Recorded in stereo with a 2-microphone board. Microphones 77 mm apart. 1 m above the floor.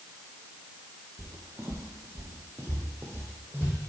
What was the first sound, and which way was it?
Footsteps, 40° right (ahead or behind).